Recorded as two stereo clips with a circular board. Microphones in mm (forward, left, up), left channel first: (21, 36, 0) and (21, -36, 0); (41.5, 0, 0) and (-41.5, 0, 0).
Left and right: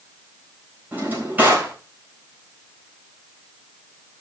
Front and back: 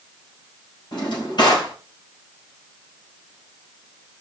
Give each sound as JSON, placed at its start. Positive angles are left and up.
{"t": 0.9, "sound": "a drawer", "azimuth_deg": -25, "distance_m": 4.0}